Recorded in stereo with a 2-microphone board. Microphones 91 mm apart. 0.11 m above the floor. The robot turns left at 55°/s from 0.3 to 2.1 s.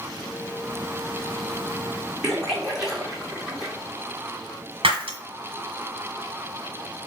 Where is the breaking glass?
80° right, 1.3 m.